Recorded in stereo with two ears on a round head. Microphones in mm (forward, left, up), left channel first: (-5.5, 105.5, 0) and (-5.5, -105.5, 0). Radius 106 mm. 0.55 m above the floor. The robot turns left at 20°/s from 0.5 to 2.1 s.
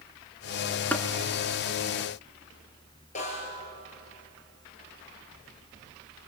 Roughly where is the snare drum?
Left.